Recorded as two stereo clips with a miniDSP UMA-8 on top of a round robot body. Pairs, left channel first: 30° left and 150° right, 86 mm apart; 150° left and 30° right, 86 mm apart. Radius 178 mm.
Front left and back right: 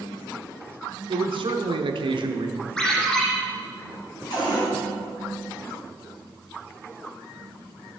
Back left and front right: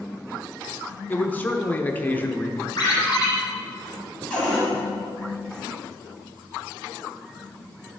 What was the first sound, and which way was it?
A man speaking, 140° right.